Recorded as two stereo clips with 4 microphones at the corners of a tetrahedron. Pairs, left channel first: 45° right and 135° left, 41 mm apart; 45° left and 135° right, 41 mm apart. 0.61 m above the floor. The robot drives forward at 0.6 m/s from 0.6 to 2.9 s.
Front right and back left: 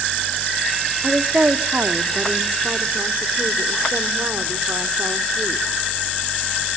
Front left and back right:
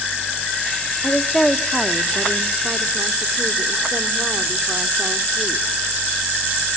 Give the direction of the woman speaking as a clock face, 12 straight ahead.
9 o'clock.